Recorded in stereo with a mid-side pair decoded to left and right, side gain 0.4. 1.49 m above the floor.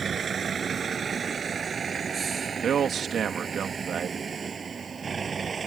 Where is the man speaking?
60° right.